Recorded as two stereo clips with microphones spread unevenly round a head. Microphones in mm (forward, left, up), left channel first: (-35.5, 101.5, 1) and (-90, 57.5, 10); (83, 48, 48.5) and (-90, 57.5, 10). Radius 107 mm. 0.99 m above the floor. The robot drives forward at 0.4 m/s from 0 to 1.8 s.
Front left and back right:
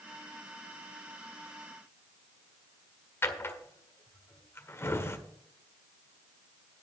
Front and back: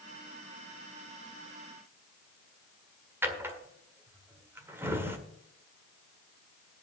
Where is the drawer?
95° left, 1.6 m.